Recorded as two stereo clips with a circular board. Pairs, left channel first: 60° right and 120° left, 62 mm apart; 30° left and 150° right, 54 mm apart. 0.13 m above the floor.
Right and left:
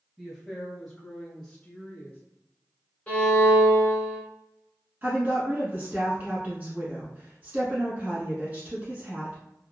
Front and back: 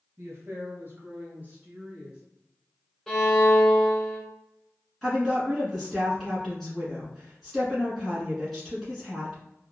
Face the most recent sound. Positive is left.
turn(degrees=115)